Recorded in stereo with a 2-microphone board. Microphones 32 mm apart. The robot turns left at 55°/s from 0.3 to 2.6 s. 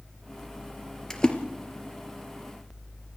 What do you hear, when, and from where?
1.1 s a splash: 15° left (ahead or behind), 2.5 m; by 1.4 s 30° left (ahead or behind), 2.5 m